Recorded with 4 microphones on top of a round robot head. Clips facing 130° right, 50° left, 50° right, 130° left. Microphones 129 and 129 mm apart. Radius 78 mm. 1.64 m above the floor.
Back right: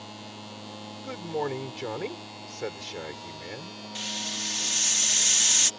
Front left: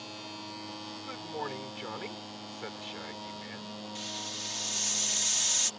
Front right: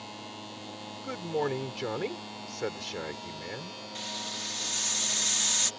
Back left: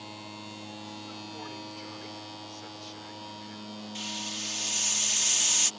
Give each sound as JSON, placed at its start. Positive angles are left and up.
{"t": 1.0, "sound": "a man speaking", "azimuth_deg": -75}
{"t": 4.0, "sound": "a hiss", "azimuth_deg": -155}